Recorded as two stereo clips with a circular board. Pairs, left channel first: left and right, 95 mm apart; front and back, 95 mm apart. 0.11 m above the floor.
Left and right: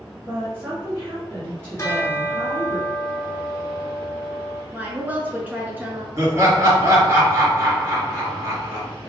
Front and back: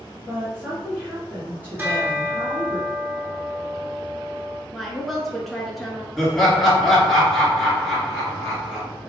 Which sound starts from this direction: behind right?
A woman speaking, at 0.2 s.